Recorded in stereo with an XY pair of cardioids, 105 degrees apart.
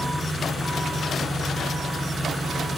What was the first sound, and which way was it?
An engine running, 10° right.